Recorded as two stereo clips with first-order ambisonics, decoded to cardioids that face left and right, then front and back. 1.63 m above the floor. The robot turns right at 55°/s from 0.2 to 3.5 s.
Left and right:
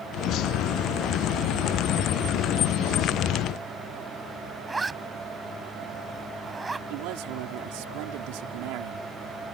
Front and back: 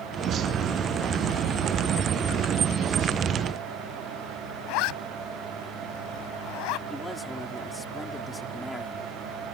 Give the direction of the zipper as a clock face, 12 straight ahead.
12 o'clock.